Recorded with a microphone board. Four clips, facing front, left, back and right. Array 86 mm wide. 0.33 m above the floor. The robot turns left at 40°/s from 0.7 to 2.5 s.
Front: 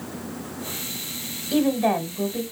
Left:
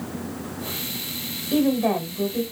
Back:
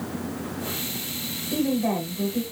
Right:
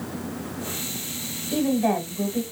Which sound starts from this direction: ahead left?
A woman speaking, at 1.5 s.